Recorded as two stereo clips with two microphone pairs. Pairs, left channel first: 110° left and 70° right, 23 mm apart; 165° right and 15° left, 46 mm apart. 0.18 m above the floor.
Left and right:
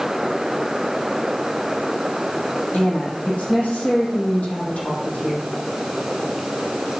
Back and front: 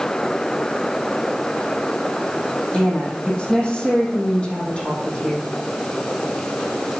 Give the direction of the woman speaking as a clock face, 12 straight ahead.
8 o'clock.